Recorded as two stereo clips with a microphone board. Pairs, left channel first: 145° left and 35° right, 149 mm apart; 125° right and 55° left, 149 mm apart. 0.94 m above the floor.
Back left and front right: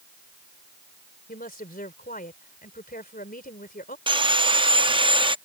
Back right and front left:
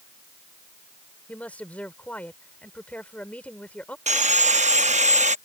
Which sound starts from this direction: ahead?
Sawing, at 4.1 s.